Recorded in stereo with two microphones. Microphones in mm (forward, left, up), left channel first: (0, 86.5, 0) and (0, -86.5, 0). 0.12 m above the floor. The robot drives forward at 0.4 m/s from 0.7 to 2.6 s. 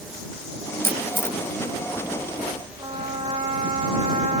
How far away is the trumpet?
About 7 m.